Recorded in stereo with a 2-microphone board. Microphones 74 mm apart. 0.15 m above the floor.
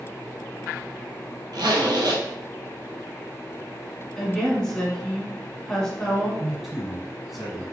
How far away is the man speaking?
About 1.1 m.